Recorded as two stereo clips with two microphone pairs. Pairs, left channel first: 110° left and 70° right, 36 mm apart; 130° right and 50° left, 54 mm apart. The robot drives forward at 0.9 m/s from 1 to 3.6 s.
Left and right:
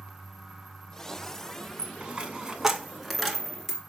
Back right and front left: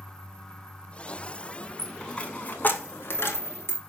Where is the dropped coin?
50° right, 1.0 m; by 3.8 s 160° right, 1.6 m.